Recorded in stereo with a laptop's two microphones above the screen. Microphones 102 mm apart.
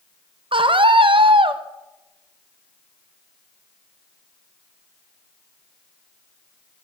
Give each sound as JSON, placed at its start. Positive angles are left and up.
{"t": 0.5, "sound": "a scream", "side_deg": -60, "distance_m": 0.7}